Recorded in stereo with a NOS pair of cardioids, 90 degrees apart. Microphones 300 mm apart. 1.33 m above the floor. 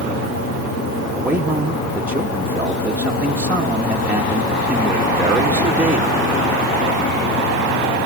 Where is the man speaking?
5° right, 1.7 m.